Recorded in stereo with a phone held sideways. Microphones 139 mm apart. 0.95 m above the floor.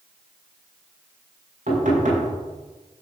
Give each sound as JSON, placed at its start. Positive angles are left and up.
{"t": 1.7, "sound": "knocking", "side_deg": -75, "distance_m": 6.5}